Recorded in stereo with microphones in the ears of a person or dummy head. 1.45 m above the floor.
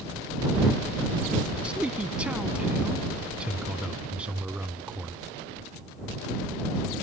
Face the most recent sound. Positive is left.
turn(degrees=-5)  # may be behind; listen again after turning